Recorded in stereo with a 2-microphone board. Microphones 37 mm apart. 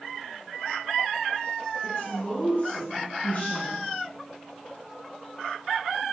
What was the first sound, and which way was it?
A woman speaking, 45° left (ahead or behind).